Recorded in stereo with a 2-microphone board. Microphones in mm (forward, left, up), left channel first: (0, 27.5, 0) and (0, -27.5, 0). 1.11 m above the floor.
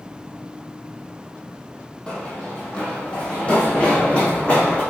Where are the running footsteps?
20° left (ahead or behind), 2.5 m; by 4.8 s 25° left (ahead or behind), 4 m.